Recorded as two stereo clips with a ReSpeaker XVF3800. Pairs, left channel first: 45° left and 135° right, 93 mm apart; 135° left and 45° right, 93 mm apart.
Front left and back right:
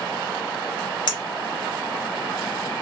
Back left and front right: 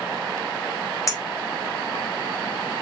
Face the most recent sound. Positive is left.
turn(degrees=80)